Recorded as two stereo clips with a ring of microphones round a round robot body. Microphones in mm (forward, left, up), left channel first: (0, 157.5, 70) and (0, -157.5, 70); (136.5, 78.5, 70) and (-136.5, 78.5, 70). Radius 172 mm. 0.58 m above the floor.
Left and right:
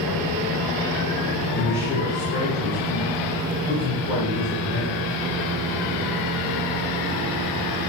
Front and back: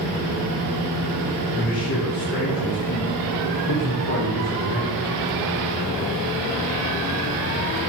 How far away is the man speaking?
About 2.5 m.